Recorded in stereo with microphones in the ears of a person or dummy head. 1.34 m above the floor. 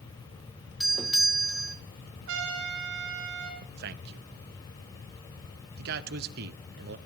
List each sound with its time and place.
0.8 s a doorbell: centre (ahead or behind), 1.0 m
2.3 s a trumpet: 70° right (ahead or behind), 4.5 m
3.6 s a man speaking: 55° right (ahead or behind), 0.9 m